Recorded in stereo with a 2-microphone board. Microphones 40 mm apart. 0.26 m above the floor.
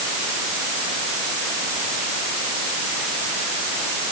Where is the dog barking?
I don't hear a dog barking.